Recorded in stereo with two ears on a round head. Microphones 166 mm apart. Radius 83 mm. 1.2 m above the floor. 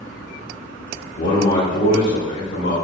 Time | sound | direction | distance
1.2 | a man speaking | 65° left (ahead or behind) | 1.2 m